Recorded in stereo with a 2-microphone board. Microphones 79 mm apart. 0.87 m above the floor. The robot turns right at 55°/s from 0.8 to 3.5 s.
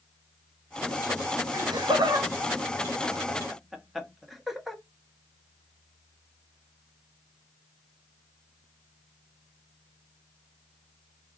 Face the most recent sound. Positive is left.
turn(degrees=0)  # may be behind; listen again after turning